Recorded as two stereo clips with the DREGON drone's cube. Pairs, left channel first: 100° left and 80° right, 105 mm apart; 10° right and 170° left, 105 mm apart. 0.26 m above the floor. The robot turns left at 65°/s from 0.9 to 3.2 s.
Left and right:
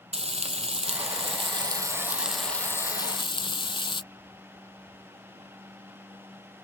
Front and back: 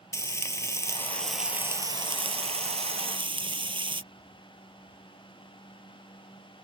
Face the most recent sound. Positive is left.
turn(degrees=135)